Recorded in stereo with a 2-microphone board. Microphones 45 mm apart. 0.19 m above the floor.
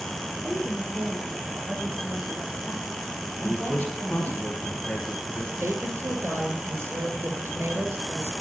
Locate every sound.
0.4 s a woman speaking: 50° right (ahead or behind), 8 m
3.4 s a man speaking: 30° left (ahead or behind), 2.5 m
5.6 s a woman speaking: 70° right (ahead or behind), 4 m